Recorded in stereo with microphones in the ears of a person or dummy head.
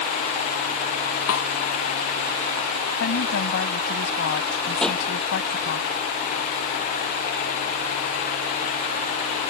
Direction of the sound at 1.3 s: 85° left.